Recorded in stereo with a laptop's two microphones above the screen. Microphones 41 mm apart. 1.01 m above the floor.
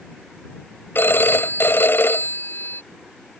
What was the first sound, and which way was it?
A phone ringing, 65° left (ahead or behind).